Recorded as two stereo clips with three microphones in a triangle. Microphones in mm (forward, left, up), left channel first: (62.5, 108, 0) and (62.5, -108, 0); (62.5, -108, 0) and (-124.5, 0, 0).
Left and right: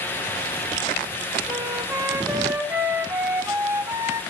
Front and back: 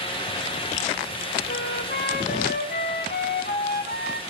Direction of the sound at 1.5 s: 15° right.